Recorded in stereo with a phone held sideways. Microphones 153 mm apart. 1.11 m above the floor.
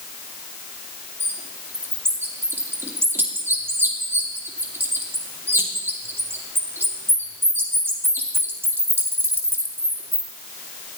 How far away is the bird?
About 2 m.